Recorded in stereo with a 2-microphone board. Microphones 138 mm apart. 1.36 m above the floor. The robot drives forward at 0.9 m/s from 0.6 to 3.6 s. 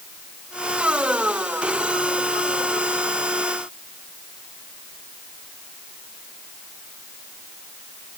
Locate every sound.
Only background noise.